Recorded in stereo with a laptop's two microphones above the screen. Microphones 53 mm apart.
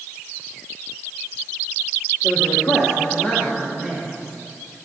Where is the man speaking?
55° left (ahead or behind), 1.2 m; by 4.1 s 10° left (ahead or behind), 2 m.